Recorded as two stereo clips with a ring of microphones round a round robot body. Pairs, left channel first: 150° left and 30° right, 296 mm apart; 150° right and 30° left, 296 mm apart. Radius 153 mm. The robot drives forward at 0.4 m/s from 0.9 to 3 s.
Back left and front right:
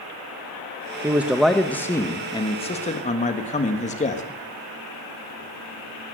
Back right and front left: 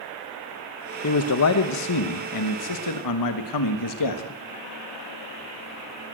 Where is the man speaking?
110° right, 1.0 m; by 4.2 s 145° right, 1.4 m.